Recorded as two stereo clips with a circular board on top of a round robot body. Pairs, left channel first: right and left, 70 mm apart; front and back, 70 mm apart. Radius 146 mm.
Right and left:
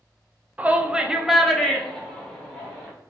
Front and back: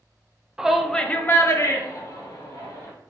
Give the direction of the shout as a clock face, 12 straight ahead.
8 o'clock.